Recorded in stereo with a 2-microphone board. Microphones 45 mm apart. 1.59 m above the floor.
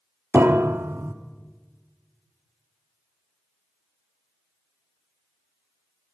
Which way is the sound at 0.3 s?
60° right (ahead or behind).